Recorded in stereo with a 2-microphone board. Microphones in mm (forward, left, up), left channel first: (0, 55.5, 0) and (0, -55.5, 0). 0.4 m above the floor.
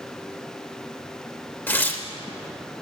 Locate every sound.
1.7 s tearing paper: 15° left (ahead or behind), 0.9 m